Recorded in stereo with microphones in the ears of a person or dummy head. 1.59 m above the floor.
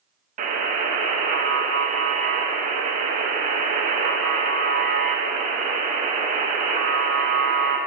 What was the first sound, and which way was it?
A buzzer, 50° right (ahead or behind).